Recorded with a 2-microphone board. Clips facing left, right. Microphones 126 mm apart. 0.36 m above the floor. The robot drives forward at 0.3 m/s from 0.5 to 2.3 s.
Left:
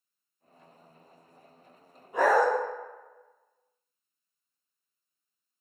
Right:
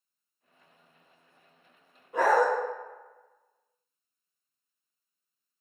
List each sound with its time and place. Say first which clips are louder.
2.1 s a dog barking: even; 10° left (ahead or behind), 1.2 m